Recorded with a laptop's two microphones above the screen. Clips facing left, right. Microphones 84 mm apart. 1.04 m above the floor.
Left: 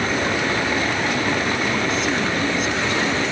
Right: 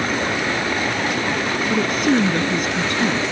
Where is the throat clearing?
I don't hear throat clearing.